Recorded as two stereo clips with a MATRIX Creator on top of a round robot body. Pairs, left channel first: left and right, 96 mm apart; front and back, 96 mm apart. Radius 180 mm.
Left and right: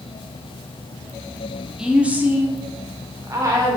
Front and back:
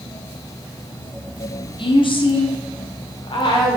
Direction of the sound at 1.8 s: 10° right.